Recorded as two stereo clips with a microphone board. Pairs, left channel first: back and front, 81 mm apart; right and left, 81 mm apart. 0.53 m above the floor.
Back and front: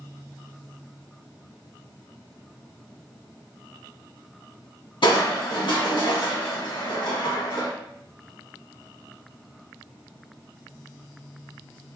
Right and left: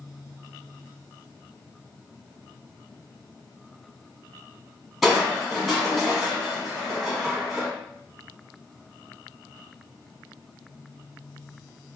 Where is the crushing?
Straight behind, 1.5 m.